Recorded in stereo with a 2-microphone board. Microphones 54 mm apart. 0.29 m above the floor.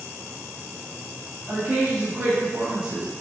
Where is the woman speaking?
30° right (ahead or behind), 2 m; by 3.1 s 10° right (ahead or behind), 1.5 m.